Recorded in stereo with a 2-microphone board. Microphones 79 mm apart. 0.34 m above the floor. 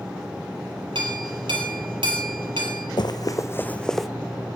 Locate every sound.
0.9 s a clink: 75° right (ahead or behind), 6.5 m
3.0 s running footsteps: 65° left (ahead or behind), 1.1 m; by 4.1 s centre (ahead or behind), 1.2 m